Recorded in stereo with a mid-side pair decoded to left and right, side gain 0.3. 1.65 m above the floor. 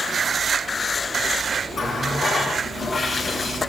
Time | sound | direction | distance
1.7 | a running tap | 70° left | 7 m